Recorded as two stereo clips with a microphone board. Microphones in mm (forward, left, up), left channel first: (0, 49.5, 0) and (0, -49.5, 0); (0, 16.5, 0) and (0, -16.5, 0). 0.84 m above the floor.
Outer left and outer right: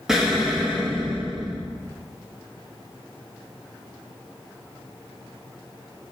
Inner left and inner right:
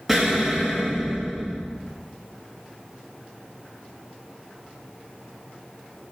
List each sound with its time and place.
0.1 s an explosion: 5° right (ahead or behind), 1.3 m